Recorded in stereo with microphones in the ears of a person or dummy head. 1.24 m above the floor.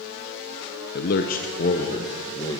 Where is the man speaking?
50° left (ahead or behind), 0.8 m; by 2.6 s 20° left (ahead or behind), 1.5 m.